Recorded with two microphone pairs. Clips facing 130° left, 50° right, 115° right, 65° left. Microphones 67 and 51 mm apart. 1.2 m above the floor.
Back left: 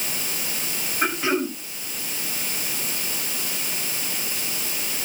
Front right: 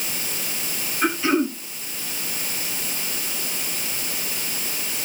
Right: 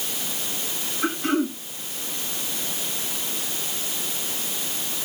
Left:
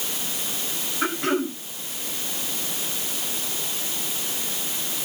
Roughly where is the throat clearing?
Left.